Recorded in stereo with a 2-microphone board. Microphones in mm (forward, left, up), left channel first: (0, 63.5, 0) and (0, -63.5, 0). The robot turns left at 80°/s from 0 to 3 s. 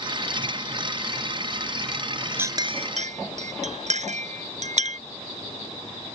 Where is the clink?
15° right (ahead or behind); by 5.0 s 65° right (ahead or behind).